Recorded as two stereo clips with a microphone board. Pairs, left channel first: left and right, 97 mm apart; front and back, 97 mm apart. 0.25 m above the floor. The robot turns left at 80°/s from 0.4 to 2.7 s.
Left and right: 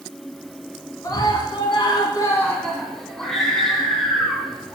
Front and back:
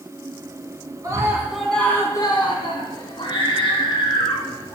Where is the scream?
135° left, 2.5 m; by 4.8 s 5° left, 2.5 m.